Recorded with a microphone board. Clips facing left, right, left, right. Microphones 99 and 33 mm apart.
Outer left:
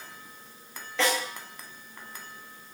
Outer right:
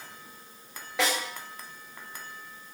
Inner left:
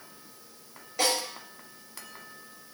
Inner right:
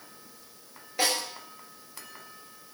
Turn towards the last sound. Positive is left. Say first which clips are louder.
# outer left 1 dB, even
turn(degrees=-15)  # may be behind; listen again after turning